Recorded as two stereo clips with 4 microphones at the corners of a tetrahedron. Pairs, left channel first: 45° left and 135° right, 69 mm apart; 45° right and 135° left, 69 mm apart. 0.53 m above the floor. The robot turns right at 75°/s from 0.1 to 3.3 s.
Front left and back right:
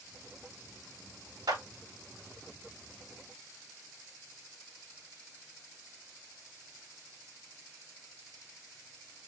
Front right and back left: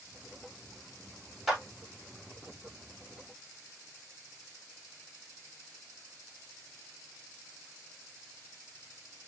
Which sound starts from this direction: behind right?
A clap, at 1.5 s.